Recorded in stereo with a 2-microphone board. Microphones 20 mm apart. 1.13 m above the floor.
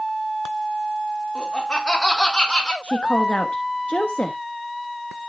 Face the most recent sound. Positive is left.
turn(degrees=90)